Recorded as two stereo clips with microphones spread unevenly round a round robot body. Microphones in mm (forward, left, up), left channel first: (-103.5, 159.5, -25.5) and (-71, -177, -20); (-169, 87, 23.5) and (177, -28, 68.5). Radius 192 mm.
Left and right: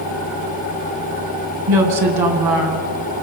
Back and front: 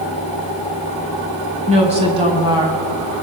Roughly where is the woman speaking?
Right.